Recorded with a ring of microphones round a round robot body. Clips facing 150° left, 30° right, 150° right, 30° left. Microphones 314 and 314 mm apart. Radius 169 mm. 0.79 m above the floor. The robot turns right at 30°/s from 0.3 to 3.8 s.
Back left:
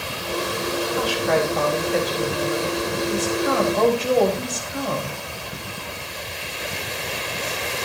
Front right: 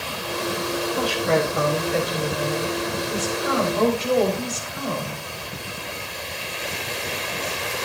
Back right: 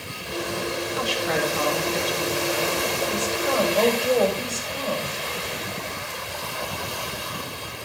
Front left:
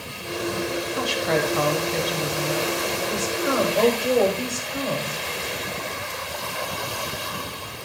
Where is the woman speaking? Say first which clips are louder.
Even, front left 3 dB; 30° left, 4.5 m; by 5.2 s 115° left, 4.5 m.